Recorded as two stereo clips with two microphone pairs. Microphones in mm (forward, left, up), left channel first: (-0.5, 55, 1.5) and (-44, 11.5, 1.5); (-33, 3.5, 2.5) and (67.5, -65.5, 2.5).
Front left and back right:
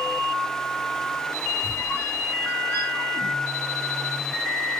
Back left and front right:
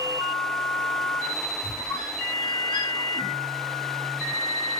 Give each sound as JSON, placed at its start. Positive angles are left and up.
{"t": 1.6, "sound": "a squeak", "azimuth_deg": 100, "distance_m": 0.8}